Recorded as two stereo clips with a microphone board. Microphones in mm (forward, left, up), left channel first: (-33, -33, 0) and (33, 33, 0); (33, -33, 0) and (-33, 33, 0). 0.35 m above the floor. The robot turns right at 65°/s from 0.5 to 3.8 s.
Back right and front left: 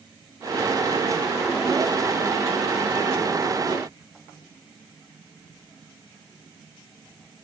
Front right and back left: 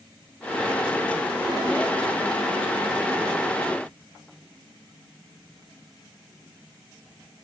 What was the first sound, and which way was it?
Only background noise.